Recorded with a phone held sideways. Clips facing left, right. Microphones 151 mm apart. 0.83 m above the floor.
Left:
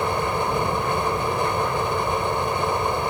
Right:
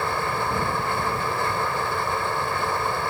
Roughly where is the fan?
Centre.